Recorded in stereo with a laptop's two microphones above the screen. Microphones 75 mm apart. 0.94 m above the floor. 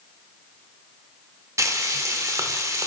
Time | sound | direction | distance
1.6 | frying | 45° right (ahead or behind) | 0.7 m